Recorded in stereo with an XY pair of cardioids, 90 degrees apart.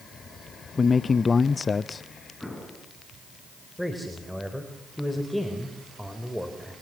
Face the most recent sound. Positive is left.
turn(degrees=5)